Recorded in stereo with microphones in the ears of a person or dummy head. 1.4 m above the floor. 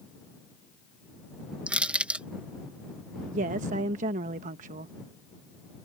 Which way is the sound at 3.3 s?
45° right (ahead or behind).